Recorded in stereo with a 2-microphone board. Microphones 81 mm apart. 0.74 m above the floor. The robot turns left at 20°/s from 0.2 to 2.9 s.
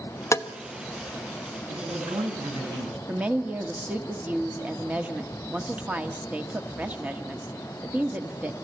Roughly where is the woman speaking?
Centre.